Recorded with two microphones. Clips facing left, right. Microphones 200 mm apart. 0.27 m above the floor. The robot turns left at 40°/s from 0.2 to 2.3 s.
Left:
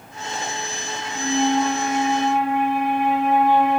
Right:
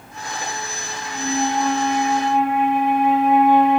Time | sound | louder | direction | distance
1.1 | a flute | left 2 dB | 85° right | 1.4 m